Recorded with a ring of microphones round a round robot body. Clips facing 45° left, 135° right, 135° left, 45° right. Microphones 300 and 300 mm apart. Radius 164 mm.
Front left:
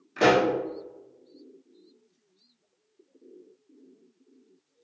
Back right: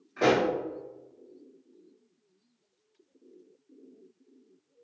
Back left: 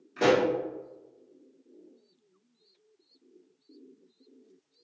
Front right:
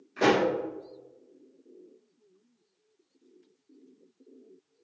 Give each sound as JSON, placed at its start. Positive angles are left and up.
{"t": 0.2, "sound": "a pop", "azimuth_deg": 55, "distance_m": 0.9}